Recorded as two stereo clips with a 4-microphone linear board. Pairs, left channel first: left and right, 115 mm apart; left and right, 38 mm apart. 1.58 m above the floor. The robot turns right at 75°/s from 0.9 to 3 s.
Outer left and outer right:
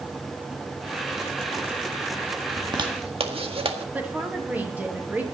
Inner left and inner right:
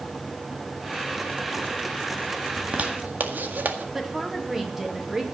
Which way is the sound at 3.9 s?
15° right (ahead or behind).